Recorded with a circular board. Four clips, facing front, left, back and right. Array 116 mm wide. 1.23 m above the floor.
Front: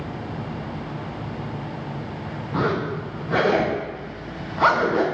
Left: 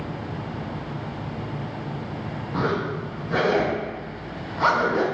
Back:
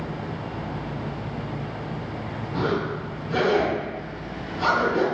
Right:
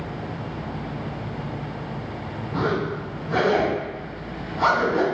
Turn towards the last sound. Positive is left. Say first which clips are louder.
# right 1 dB, front 2 dB
turn(degrees=5)